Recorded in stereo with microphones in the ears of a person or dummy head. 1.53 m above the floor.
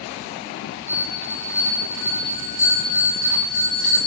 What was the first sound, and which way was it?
A bell, 35° left (ahead or behind).